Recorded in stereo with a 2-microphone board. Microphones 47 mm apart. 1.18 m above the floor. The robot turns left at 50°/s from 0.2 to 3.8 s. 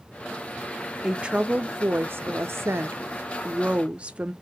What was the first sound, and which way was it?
A woman speaking, 10° right.